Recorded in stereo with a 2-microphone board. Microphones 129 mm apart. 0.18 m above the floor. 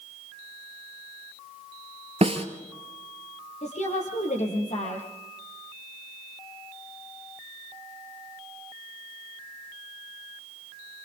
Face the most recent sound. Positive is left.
turn(degrees=70)  # may be behind; listen again after turning